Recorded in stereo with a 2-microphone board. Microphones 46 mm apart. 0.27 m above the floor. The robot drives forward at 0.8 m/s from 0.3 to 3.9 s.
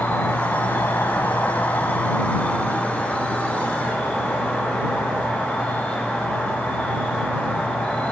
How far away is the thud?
I don't hear a thud.